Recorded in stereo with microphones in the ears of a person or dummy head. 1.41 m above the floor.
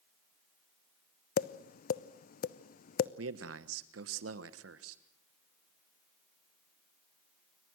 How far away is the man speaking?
About 1.2 m.